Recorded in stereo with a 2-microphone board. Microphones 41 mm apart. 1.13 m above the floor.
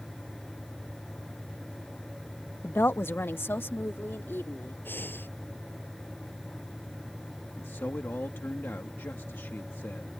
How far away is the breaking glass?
No breaking glass in this recording.